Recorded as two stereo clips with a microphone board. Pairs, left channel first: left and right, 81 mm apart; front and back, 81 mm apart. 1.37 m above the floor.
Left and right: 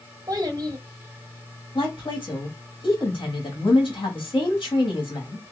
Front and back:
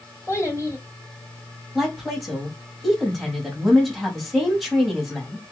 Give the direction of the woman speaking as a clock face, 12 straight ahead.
9 o'clock.